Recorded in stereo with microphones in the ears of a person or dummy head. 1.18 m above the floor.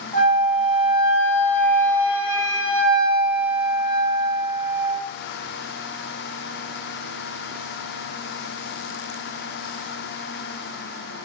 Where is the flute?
50° left (ahead or behind), 2 m.